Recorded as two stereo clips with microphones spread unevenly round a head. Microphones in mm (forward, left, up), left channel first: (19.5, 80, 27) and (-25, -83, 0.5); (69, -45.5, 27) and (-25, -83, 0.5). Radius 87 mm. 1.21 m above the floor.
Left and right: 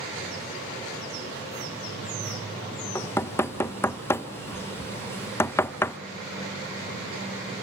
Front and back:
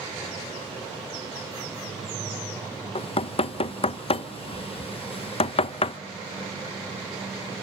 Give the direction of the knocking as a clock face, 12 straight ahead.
12 o'clock.